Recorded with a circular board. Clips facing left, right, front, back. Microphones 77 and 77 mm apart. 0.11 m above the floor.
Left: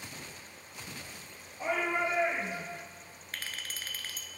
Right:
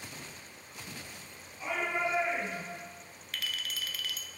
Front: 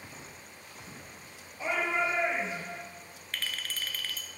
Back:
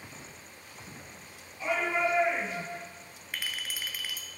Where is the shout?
60° left, 2.5 m; by 2.8 s 25° left, 1.8 m.